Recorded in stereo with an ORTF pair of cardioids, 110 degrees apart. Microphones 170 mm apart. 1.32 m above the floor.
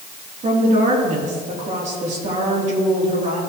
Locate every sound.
0.4 s a woman speaking: 45° right, 3.5 m